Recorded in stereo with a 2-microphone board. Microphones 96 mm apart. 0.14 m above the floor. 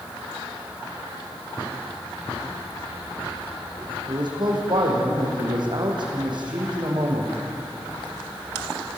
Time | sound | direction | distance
4.1 | a man speaking | 50° right (ahead or behind) | 6 m